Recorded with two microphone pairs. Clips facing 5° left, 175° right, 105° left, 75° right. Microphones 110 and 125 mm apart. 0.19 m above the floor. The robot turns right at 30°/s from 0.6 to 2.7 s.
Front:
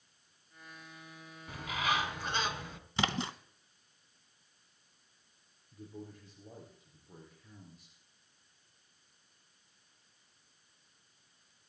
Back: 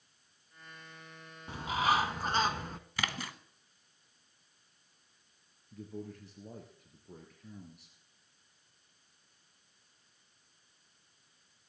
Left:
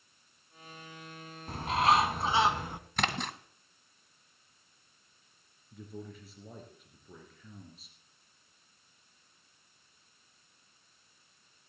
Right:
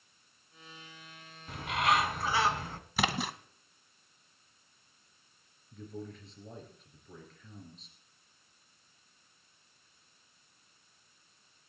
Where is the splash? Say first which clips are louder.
Front 5 dB, right 1 dB; 5° right, 0.7 m.